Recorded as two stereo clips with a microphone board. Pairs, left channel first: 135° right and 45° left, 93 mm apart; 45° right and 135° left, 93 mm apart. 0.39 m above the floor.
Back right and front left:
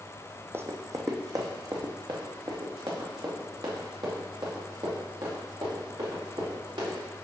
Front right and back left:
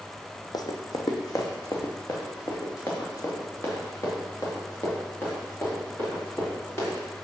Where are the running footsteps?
15° right, 0.7 m; by 7.0 s 15° left, 4.5 m.